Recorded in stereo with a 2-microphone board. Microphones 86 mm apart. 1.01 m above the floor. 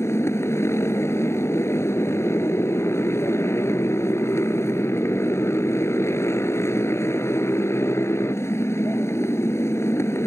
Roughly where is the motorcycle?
Left.